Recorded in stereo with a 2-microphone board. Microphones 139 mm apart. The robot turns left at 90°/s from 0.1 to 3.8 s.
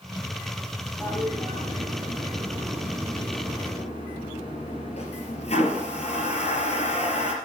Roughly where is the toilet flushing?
Centre.